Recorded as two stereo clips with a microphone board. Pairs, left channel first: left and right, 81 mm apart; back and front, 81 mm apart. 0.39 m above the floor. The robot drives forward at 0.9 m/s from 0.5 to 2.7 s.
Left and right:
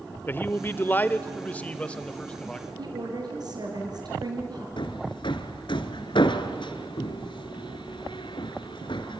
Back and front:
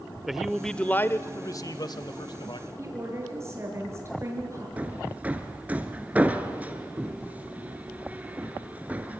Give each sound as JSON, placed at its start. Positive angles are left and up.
{"t": 0.3, "sound": "a man speaking", "azimuth_deg": 85, "distance_m": 0.9}
{"t": 2.8, "sound": "a woman speaking", "azimuth_deg": -55, "distance_m": 6.5}
{"t": 4.8, "sound": "hammering", "azimuth_deg": 75, "distance_m": 1.5}